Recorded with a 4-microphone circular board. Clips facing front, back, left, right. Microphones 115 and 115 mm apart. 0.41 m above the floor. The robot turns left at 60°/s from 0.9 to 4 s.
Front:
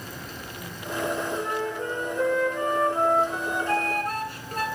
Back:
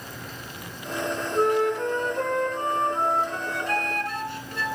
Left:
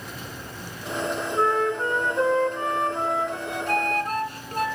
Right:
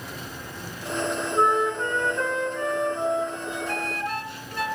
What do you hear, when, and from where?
1.3 s a flute: 155° right, 2.5 m; by 4.7 s 45° left, 2.5 m